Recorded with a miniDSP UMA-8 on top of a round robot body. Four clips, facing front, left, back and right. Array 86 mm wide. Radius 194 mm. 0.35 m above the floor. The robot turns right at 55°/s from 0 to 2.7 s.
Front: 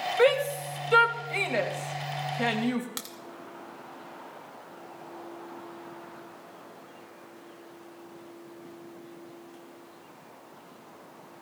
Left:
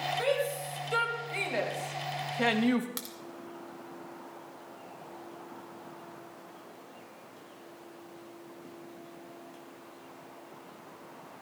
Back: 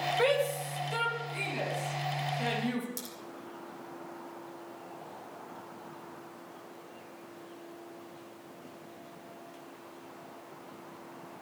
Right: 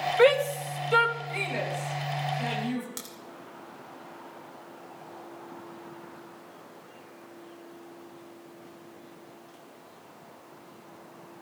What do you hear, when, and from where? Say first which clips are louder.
0.2 s a shout: right 11 dB, front 7 dB; 65° right, 3 m; by 2.9 s 70° left, 3 m
3.0 s a crack: even, front 2 dB; 15° left, 2 m